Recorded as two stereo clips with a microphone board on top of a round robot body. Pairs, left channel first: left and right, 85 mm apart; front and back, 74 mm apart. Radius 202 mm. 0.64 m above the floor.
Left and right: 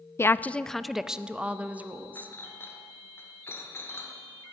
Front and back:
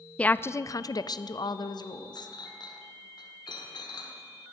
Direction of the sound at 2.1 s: 25° left.